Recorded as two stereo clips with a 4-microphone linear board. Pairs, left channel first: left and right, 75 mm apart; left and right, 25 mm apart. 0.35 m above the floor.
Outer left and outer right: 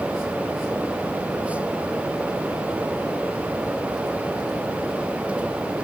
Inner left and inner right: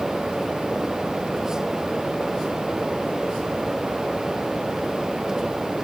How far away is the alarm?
I don't hear an alarm.